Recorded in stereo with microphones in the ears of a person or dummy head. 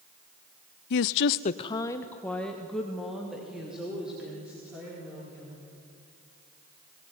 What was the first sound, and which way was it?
A woman speaking, 55° left (ahead or behind).